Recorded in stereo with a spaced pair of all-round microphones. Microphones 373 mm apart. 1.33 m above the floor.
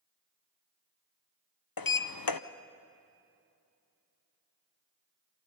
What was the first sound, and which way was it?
A sliding door, 65° left (ahead or behind).